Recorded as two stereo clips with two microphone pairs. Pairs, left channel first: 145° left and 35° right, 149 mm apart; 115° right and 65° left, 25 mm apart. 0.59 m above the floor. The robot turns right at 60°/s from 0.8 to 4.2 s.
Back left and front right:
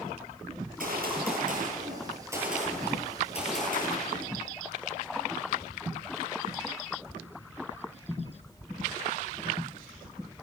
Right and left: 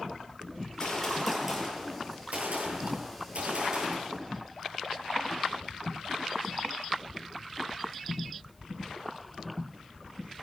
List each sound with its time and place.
0.6 s a gunshot: 55° right, 10 m; by 4.3 s 150° left, 10 m